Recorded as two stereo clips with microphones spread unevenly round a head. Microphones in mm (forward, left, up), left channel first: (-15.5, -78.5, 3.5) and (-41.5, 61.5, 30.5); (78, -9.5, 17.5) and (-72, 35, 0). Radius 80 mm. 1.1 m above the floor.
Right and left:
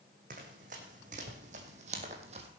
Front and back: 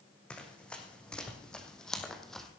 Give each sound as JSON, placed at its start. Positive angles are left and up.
{"t": 0.3, "sound": "running footsteps", "azimuth_deg": 65, "distance_m": 3.0}